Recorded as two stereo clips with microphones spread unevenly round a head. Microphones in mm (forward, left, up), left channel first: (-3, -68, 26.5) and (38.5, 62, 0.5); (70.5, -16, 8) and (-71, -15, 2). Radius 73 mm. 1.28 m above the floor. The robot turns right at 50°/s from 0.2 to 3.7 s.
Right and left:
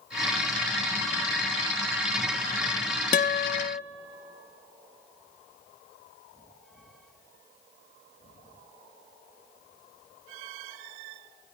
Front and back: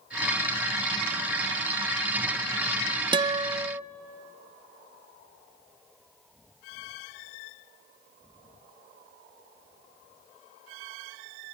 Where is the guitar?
125° right, 0.6 m; by 3.8 s 95° right, 0.6 m.